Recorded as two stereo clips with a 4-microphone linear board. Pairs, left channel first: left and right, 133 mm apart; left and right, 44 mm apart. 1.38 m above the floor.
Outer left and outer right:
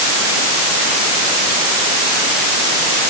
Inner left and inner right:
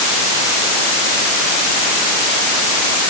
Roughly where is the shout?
I don't hear a shout.